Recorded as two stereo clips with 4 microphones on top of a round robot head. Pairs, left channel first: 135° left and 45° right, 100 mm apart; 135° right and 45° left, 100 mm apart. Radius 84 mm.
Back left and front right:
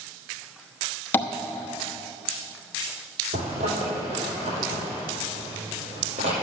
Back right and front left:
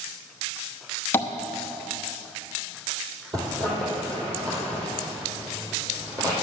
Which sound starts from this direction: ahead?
A zipper, at 3.3 s.